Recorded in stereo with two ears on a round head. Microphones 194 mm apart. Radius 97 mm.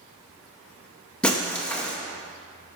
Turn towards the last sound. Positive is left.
turn(degrees=5)  # may be behind; listen again after turning